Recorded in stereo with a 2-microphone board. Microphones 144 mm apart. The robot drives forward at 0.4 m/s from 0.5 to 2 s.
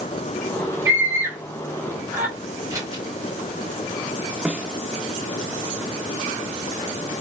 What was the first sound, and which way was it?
A scream, 20° right (ahead or behind).